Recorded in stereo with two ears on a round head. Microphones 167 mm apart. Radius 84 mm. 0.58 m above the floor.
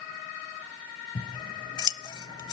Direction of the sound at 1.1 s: 25° left (ahead or behind).